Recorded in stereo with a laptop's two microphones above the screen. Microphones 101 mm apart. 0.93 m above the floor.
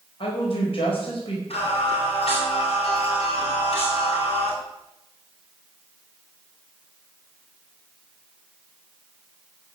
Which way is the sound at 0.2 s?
60° left (ahead or behind).